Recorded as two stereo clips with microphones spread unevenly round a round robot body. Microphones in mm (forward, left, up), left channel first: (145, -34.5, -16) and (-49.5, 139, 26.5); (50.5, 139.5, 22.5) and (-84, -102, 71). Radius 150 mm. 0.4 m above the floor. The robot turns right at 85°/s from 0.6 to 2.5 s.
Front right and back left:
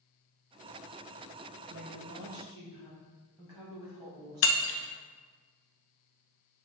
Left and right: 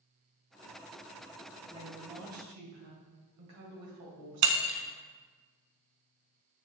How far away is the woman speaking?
About 2 m.